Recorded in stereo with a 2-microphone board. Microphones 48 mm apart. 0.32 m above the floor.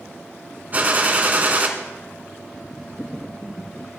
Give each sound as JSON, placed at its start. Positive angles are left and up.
{"t": 0.7, "sound": "a gunshot", "side_deg": -35, "distance_m": 2.0}